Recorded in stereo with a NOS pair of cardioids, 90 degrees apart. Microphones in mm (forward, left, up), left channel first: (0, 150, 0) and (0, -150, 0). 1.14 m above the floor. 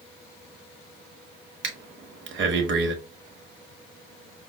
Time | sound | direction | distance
1.6 | breathing | 40° right | 1.1 m